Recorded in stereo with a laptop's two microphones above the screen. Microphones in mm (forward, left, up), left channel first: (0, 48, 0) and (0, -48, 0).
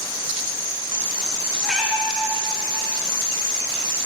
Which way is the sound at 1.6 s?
Centre (ahead or behind).